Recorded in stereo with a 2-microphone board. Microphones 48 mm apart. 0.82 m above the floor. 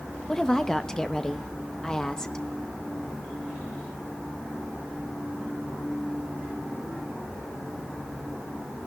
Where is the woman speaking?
15° left (ahead or behind), 0.8 m.